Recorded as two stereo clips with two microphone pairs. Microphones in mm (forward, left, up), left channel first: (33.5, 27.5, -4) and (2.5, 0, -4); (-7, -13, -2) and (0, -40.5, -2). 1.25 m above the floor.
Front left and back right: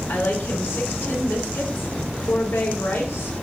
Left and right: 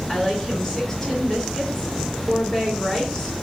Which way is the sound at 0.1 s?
30° left.